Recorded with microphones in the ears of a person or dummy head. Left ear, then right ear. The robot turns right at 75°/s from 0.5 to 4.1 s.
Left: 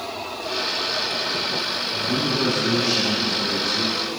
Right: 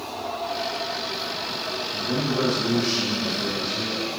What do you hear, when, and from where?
1.9 s a man speaking: 80° right, 2.5 m; by 4.1 s 80° left, 2.5 m